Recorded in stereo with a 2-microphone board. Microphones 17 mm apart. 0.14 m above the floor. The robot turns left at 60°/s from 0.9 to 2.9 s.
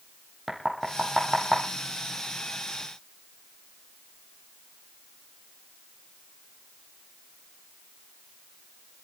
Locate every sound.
0.5 s knocking: 20° right (ahead or behind), 3.5 m; by 1.6 s 25° left (ahead or behind), 3.5 m